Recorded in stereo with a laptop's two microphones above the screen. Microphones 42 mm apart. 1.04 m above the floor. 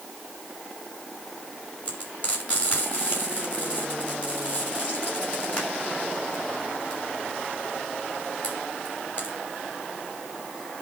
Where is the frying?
35° left (ahead or behind), 6 m.